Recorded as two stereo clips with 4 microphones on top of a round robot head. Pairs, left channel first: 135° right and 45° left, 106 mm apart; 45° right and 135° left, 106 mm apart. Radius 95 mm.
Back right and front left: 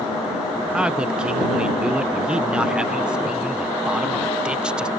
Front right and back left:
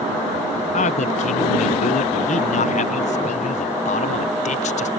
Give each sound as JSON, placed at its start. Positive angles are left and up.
{"t": 0.7, "sound": "a man speaking", "azimuth_deg": -35}